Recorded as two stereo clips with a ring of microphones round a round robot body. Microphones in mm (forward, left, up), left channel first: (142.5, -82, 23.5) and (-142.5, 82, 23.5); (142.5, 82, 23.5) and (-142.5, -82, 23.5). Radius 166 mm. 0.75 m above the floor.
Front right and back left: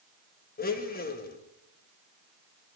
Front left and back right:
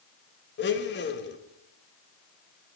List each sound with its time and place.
0.6 s a blender: 10° left, 1.1 m